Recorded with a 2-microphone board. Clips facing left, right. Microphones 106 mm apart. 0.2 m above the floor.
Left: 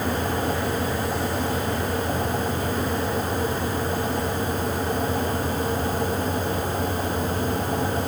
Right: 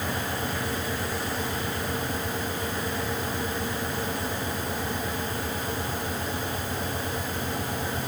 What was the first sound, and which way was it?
Only background noise.